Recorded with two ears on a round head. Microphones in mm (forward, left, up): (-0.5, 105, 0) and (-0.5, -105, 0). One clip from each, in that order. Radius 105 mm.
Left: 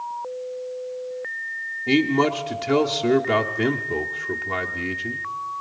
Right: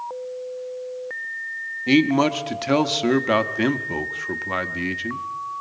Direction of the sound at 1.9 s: 30° right (ahead or behind).